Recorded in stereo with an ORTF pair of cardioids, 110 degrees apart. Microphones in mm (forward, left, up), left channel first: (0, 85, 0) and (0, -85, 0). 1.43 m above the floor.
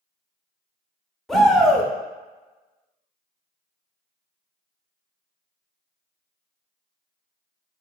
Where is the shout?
Straight ahead, 0.7 m.